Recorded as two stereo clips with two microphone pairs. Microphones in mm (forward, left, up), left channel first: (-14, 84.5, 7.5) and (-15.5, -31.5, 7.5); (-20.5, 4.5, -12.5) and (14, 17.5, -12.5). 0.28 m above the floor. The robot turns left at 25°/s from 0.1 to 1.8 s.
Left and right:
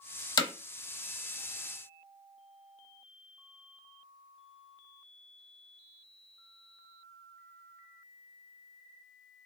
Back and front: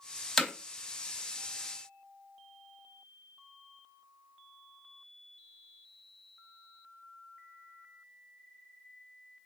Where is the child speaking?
No child speaking in this recording.